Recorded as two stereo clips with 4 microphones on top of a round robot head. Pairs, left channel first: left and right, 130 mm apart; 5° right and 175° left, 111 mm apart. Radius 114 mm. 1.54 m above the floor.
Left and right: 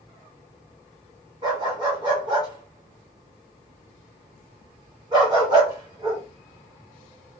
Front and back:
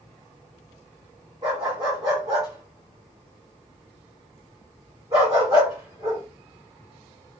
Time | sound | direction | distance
1.4 | a dog barking | 130° right | 1.3 m